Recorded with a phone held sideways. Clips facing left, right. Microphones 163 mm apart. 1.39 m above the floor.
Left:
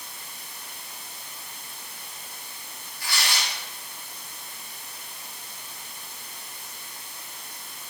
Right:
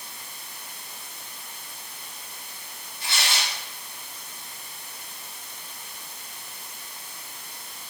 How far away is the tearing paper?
About 3.5 m.